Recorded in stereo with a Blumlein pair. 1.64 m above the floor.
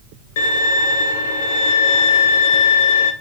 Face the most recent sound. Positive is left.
turn(degrees=55)